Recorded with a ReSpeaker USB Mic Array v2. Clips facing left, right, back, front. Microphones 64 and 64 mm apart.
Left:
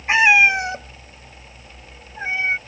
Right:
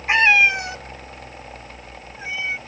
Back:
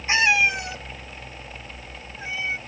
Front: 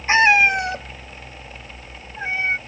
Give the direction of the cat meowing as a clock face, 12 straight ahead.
12 o'clock.